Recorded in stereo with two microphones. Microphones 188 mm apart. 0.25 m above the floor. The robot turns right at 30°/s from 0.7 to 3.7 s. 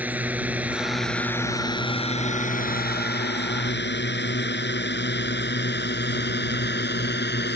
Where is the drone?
10° right (ahead or behind); by 7.6 s 65° left (ahead or behind).